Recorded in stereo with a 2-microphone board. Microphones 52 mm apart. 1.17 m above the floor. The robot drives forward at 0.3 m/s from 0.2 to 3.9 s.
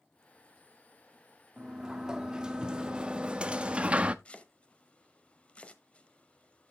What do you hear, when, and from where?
1.6 s a sliding door: 15° right (ahead or behind), 1.1 m; by 4.2 s 25° right (ahead or behind), 0.6 m
4.2 s chopping: 25° left (ahead or behind), 1.1 m